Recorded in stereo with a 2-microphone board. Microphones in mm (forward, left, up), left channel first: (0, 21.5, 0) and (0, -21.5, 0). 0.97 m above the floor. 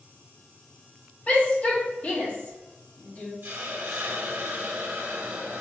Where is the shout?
35° left (ahead or behind), 1.4 m.